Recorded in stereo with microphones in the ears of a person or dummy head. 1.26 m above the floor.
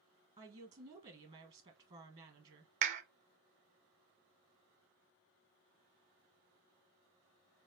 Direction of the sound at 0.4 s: 35° right (ahead or behind).